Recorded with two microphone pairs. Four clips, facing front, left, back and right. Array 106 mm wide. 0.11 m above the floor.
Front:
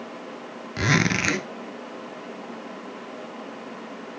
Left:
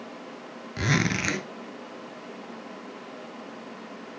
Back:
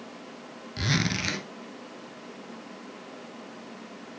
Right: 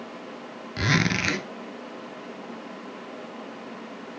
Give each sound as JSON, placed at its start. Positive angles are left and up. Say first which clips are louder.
{"t": 0.8, "sound": "a zipper", "louder": "right 1 dB, front 6 dB", "azimuth_deg": -10, "distance_m": 0.6}